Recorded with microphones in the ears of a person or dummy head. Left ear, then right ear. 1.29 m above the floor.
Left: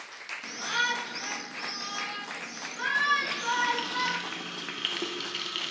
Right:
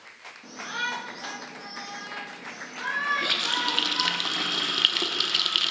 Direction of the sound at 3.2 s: 40° right (ahead or behind).